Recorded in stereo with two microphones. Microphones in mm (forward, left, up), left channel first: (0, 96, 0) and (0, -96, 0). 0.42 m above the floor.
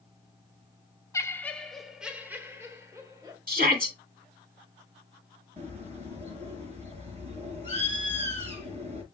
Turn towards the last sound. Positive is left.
turn(degrees=-30)  # may be behind; listen again after turning